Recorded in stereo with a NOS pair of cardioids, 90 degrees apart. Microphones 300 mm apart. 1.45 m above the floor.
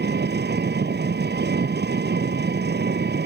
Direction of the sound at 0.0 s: 35° right.